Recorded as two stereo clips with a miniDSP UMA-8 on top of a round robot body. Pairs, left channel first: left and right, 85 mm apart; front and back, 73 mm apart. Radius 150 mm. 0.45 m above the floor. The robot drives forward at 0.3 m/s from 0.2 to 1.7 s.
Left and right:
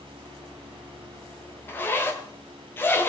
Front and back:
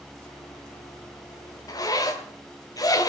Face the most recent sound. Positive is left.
turn(degrees=30)